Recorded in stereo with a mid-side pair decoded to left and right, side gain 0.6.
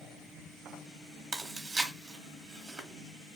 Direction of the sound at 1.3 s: 35° right.